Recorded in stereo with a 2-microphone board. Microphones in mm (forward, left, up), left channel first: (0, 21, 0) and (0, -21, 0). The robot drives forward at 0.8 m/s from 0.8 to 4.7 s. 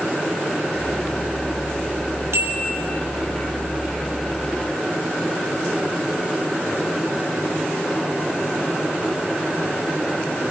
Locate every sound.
2.3 s a bell: 65° right (ahead or behind), 4 m; by 2.6 s 70° right (ahead or behind), 4 m